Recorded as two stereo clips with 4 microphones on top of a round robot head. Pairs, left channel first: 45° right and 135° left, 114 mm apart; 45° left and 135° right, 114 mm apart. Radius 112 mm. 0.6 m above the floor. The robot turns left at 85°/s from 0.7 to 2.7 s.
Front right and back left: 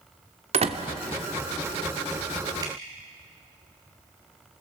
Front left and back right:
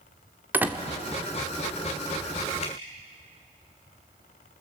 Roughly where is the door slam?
Behind left.